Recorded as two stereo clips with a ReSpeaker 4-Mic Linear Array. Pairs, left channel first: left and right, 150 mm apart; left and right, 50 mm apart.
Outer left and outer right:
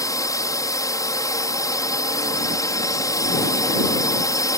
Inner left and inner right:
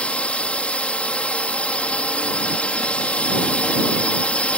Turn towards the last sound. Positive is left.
turn(degrees=25)  # may be behind; listen again after turning